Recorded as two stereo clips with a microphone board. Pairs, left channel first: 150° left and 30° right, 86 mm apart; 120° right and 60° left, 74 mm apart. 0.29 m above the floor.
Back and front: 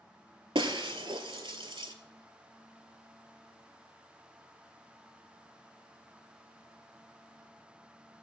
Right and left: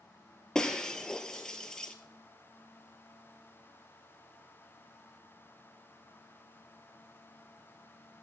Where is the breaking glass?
40° right, 0.6 m.